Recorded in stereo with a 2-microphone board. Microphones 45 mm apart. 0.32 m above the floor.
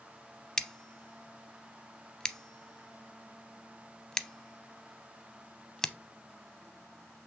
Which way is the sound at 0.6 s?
10° left (ahead or behind).